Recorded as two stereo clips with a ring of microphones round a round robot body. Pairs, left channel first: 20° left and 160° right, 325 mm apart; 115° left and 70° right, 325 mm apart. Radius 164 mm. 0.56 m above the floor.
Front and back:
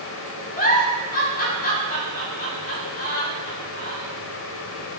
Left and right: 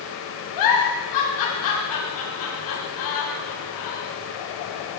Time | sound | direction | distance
0.6 | a giggle | 85° left | 5 m